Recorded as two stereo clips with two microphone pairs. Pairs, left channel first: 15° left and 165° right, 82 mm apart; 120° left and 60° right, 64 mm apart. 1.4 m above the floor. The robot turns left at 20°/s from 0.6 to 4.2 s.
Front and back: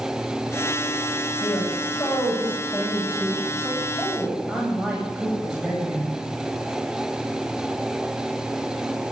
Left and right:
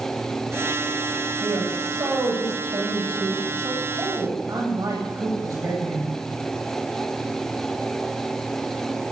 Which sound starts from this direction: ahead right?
A woman speaking, at 1.4 s.